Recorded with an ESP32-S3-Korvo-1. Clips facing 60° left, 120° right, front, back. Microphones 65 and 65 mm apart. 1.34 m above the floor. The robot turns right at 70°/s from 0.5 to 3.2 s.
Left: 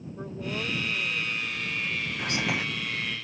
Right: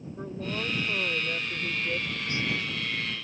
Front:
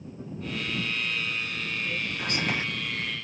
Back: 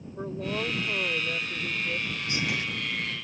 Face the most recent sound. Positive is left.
turn(degrees=100)